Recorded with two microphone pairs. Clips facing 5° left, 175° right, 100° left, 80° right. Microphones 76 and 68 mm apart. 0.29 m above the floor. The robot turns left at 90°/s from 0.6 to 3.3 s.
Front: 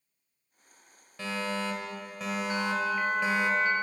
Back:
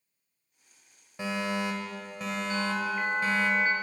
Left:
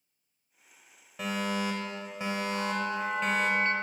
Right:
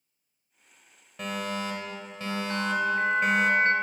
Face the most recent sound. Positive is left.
turn(degrees=-135)